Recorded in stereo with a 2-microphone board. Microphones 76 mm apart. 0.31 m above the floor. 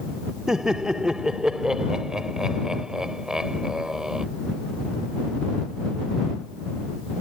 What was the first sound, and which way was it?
Laughter, 10° right (ahead or behind).